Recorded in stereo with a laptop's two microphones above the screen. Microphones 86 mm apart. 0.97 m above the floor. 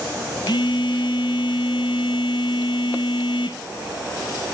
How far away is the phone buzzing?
About 1.3 m.